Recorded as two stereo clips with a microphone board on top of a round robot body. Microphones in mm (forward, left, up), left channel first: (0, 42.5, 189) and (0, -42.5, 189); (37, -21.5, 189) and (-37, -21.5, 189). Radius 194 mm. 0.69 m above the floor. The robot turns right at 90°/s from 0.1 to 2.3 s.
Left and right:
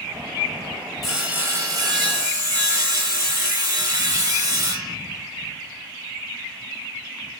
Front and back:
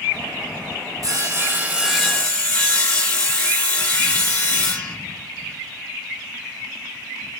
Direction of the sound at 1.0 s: Straight behind.